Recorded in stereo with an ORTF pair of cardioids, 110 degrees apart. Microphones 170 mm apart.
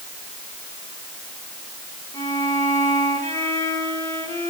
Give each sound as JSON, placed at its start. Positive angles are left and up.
{"t": 2.1, "sound": "a violin", "azimuth_deg": 20, "distance_m": 8.5}